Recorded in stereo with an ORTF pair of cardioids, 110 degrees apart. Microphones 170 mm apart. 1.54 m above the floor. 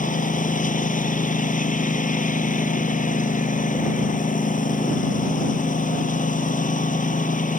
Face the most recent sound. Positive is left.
turn(degrees=50)